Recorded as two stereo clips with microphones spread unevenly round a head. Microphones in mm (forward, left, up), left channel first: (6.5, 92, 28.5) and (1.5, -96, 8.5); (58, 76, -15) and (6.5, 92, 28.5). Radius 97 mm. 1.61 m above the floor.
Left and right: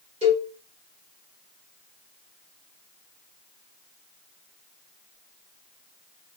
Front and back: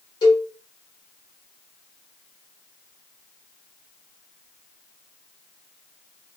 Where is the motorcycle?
I don't hear a motorcycle.